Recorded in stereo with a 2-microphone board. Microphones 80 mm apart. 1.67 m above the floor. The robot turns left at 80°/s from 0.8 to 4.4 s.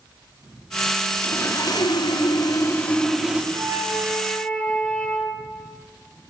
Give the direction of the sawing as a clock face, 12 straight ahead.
7 o'clock.